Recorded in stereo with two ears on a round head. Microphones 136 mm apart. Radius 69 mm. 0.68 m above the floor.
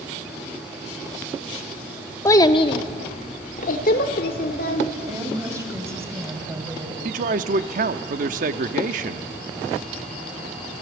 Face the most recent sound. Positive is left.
turn(degrees=-55)  # may be behind; listen again after turning